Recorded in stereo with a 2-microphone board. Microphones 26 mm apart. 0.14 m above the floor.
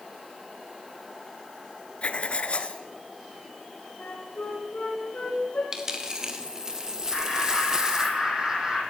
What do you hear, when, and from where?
2.0 s writing: 50° left (ahead or behind), 1.5 m
4.0 s a flute: 55° left (ahead or behind), 6.5 m
5.7 s a dropped coin: 20° right (ahead or behind), 2.5 m
7.1 s laughter: 25° right (ahead or behind), 7 m